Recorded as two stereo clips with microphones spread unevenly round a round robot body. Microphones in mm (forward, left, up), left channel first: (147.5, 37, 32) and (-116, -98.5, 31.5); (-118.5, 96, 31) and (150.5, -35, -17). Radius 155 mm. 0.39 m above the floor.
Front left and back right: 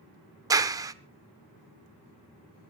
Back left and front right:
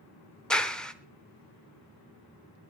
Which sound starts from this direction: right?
A clap, at 0.5 s.